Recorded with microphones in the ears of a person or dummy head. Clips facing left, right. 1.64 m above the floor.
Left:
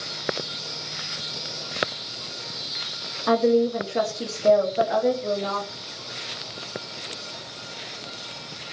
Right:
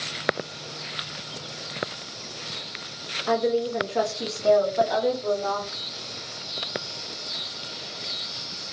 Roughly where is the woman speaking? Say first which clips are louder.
Left 4 dB; left.